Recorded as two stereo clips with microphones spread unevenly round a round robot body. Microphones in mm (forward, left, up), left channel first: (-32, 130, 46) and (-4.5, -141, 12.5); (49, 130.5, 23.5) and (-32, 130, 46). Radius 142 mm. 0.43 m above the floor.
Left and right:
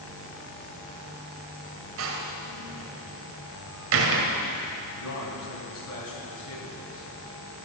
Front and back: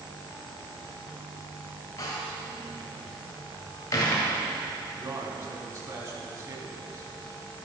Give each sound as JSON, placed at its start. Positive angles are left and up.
{"t": 2.0, "sound": "a door slam", "azimuth_deg": -50, "distance_m": 1.8}
{"t": 5.0, "sound": "a man speaking", "azimuth_deg": 130, "distance_m": 4.5}